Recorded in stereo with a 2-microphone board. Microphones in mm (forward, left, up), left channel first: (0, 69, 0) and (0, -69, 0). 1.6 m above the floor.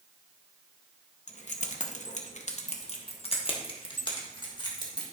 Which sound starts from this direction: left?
Keys jangling, at 1.3 s.